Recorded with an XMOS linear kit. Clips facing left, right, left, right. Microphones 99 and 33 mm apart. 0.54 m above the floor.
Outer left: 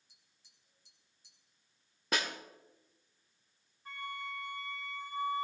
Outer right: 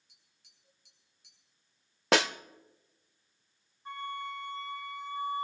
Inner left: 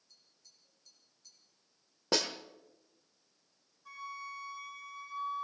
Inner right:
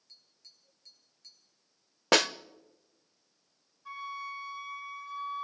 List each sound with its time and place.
0.1 s tapping: 60° right (ahead or behind), 5 m
2.1 s a snare drum: 90° right, 0.6 m
3.9 s a flute: 25° right (ahead or behind), 4.5 m